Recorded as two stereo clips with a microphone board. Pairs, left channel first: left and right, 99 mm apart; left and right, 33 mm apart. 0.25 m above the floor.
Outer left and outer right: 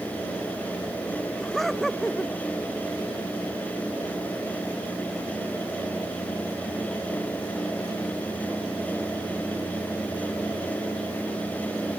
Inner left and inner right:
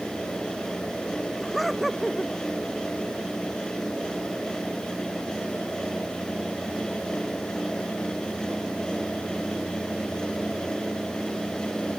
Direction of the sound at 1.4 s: Centre (ahead or behind).